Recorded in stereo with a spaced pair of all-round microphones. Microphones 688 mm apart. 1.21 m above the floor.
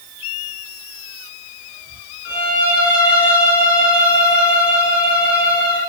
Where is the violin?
45° left (ahead or behind), 2.5 m.